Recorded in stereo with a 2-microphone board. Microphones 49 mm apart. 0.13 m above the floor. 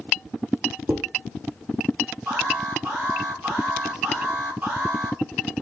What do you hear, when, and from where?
0.9 s dishes clattering: 55° right (ahead or behind), 4 m
2.3 s an alarm: 45° right (ahead or behind), 5 m